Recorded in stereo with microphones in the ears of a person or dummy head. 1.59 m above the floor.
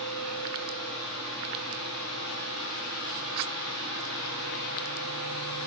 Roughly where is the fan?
Left.